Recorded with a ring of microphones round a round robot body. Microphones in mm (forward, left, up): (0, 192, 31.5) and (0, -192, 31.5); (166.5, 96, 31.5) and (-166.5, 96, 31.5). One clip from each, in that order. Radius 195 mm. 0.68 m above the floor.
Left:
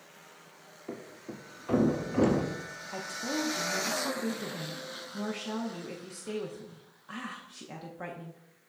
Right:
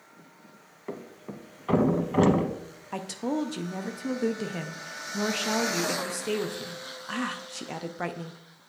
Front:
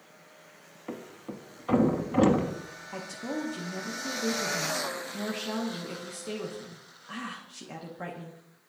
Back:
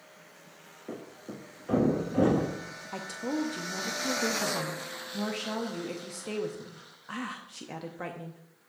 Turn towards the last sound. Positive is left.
turn(degrees=-115)